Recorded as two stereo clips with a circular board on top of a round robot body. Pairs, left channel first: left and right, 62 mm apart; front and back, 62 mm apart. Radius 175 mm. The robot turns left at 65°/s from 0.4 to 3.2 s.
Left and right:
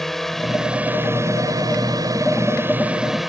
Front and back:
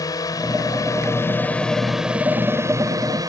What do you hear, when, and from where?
0.0 s a drone: 5° left; by 3.3 s 175° right